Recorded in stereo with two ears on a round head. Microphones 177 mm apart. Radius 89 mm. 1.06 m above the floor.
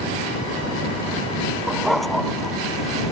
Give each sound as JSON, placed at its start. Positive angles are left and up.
{"t": 1.7, "sound": "a dog barking", "side_deg": 0}